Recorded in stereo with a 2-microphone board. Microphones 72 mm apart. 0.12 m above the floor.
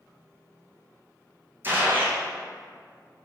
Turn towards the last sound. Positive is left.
turn(degrees=-25)  # may be behind; listen again after turning